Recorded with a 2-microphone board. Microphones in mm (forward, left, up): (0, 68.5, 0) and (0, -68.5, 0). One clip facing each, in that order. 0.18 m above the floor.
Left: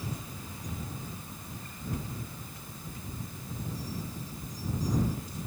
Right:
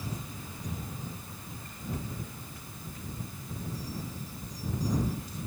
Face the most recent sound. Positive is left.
No sound to turn to.